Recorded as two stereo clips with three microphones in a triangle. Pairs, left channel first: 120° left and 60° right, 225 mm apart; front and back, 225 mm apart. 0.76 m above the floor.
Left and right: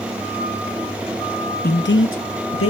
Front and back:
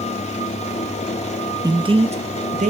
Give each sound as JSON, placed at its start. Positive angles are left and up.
{"t": 1.6, "sound": "a man speaking", "azimuth_deg": 110, "distance_m": 0.6}